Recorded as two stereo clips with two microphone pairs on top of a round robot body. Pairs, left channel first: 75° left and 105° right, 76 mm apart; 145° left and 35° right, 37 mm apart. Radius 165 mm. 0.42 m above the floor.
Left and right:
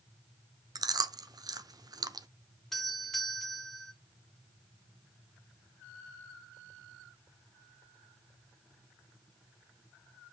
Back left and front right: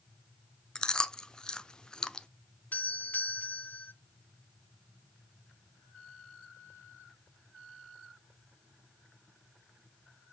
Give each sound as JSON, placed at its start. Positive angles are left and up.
{"t": 0.8, "sound": "chewing", "azimuth_deg": -140, "distance_m": 0.8}
{"t": 2.7, "sound": "a doorbell", "azimuth_deg": 150, "distance_m": 2.0}